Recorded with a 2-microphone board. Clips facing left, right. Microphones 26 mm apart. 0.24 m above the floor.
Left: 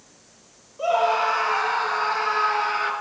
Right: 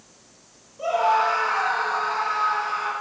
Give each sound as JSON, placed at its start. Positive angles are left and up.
{"t": 0.8, "sound": "a scream", "side_deg": 10, "distance_m": 5.0}